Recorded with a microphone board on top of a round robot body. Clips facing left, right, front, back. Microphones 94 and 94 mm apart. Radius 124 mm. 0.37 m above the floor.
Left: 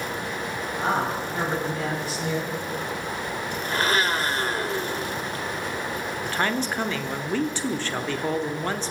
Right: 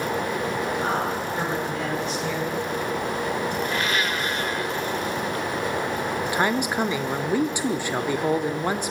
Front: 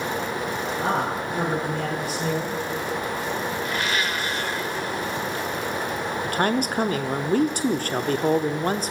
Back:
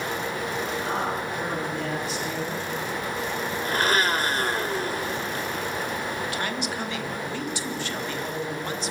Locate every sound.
0.8 s a man speaking: 5° left, 10 m; by 2.6 s 15° left, 9 m
3.6 s a blender: 140° left, 1.8 m
6.2 s a man speaking: 20° right, 1.2 m